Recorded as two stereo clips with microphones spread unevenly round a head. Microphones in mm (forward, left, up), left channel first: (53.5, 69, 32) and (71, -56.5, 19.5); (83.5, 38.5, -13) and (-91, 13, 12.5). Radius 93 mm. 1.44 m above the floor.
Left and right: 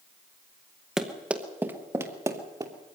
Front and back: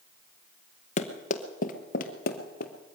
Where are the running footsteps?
15° left, 1.5 m; by 2.7 s 25° right, 2 m.